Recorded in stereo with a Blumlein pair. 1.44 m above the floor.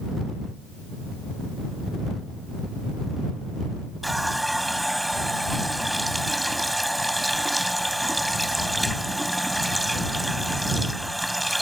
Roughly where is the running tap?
Ahead.